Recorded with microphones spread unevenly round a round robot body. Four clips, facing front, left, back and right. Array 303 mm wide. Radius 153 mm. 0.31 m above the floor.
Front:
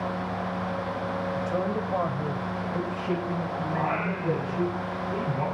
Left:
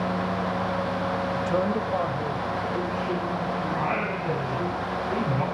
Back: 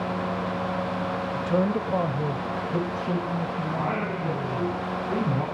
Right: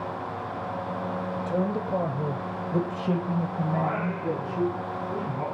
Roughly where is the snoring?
No snoring in this recording.